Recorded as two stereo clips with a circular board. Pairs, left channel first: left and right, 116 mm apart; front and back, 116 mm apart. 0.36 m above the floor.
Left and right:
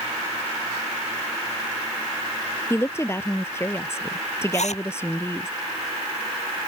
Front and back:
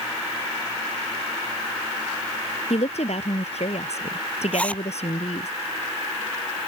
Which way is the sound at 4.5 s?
80° left.